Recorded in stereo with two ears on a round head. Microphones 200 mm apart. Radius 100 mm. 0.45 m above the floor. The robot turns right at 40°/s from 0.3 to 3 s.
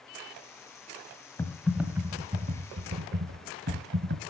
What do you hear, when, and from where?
1.4 s typing on a keyboard: 170° left, 1.1 m; by 4.2 s 125° right, 1.1 m